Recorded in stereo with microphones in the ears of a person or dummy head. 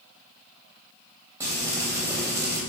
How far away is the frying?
About 3 m.